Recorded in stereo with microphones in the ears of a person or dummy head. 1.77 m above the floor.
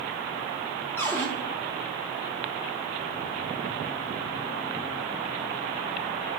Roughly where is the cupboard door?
Centre.